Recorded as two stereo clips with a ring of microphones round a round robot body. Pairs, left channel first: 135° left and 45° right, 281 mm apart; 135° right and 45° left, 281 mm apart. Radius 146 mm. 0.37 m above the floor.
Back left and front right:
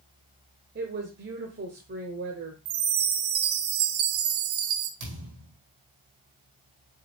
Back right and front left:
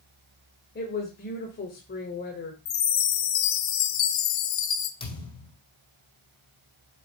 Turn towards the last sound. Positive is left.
turn(degrees=-65)